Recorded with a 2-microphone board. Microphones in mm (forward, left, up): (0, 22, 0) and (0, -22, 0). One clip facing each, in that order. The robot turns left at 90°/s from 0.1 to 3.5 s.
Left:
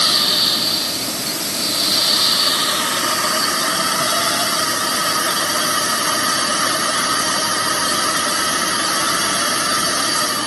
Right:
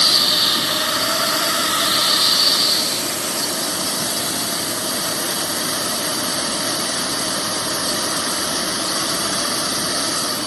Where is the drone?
15° left; by 10.5 s 70° left.